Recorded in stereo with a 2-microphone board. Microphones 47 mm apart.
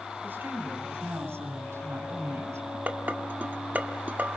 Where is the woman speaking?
45° right (ahead or behind), 5 m; by 2.8 s 80° right, 6.5 m.